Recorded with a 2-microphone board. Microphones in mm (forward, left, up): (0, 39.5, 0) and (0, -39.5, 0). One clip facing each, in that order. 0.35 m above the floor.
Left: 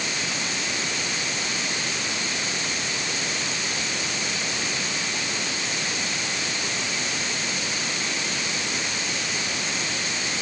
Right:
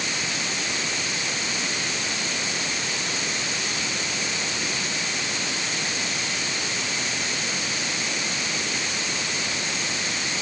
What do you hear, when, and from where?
Only background noise.